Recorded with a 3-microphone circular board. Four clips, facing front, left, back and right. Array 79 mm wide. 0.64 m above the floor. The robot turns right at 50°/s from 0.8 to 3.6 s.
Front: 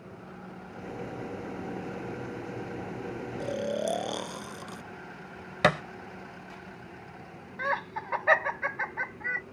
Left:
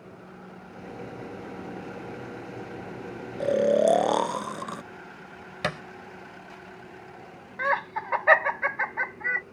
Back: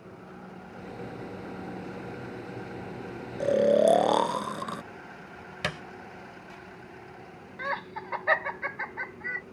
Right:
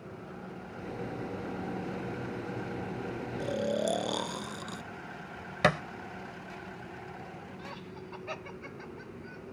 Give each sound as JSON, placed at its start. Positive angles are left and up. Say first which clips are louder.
{"t": 3.4, "sound": "snoring", "louder": "left 11 dB, back 11 dB", "azimuth_deg": 125}
{"t": 5.6, "sound": "a thud", "louder": "right 5 dB, front 10 dB", "azimuth_deg": -20}
{"t": 7.6, "sound": "laughter", "louder": "left 17 dB, front 2 dB", "azimuth_deg": 80}